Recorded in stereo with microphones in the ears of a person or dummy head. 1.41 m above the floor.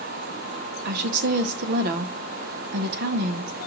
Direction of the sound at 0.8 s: 55° right (ahead or behind).